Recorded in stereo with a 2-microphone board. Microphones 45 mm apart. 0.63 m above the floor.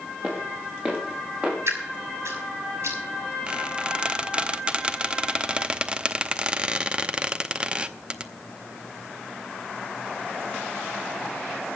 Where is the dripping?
75° right (ahead or behind), 5.5 m.